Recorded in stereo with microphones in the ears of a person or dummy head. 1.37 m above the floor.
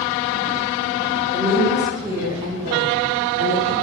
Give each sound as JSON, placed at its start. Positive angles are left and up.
{"t": 1.3, "sound": "a woman speaking", "side_deg": 15, "distance_m": 1.1}